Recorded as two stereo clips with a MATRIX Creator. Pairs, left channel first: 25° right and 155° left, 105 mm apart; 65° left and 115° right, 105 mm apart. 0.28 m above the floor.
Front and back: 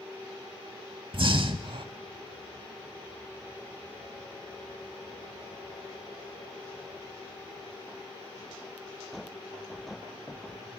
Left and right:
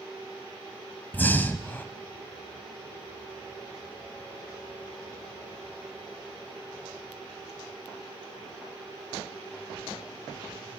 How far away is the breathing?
About 0.6 m.